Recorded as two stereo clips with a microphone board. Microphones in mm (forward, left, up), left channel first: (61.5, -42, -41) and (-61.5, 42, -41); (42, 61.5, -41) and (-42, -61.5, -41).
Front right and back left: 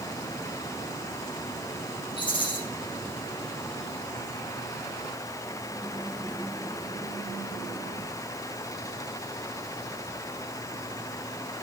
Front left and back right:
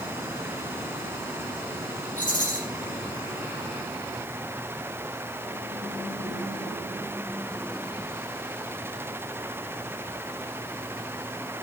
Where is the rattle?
25° left, 4.5 m.